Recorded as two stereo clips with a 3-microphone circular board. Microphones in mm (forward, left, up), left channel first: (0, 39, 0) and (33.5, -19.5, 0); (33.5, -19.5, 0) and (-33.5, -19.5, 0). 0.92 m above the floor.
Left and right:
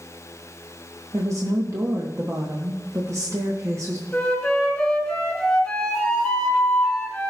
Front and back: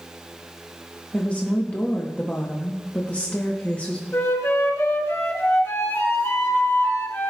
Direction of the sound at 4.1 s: 45° left.